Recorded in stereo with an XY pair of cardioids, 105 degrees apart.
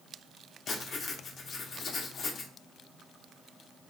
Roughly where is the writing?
Ahead left.